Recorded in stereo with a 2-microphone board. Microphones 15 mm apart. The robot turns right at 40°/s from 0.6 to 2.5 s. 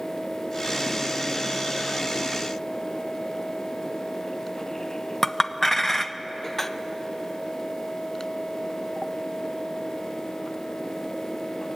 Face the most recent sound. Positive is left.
turn(degrees=25)  # may be behind; listen again after turning